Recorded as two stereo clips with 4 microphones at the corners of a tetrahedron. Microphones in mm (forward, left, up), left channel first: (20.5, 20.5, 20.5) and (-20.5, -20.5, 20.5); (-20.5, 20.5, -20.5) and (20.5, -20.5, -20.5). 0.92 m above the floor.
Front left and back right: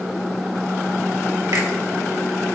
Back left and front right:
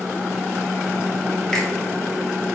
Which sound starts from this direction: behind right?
A finger snap, at 1.5 s.